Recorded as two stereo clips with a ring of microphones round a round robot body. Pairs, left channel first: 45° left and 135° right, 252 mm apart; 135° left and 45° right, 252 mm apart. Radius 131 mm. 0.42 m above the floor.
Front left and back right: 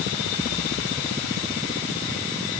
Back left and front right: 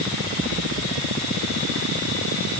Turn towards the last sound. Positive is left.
No sound to turn to.